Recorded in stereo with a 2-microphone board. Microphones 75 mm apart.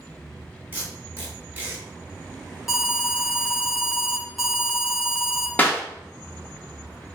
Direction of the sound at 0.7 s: 30° right (ahead or behind).